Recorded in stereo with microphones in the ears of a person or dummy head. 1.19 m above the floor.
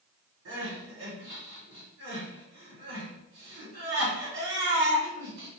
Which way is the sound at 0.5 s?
80° right.